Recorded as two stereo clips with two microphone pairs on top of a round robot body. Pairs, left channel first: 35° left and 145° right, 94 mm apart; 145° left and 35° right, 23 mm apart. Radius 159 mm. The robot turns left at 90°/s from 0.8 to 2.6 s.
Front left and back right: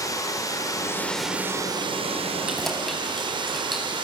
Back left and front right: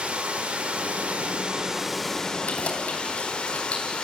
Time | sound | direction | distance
0.0 | running water | 15° right | 3 m
2.5 | keys jangling | 135° left | 4 m